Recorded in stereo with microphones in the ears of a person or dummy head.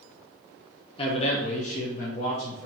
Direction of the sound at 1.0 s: 30° left (ahead or behind).